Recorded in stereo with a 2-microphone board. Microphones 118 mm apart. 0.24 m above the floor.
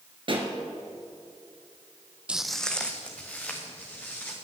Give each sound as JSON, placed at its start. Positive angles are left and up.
{"t": 0.3, "sound": "a pop", "side_deg": -50, "distance_m": 1.8}
{"t": 2.3, "sound": "footsteps", "side_deg": -10, "distance_m": 0.5}